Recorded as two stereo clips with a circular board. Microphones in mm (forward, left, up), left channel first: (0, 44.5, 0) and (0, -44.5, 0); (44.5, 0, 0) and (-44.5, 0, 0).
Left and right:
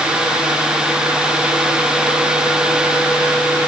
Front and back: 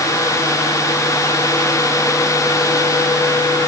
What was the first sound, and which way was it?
Only background noise.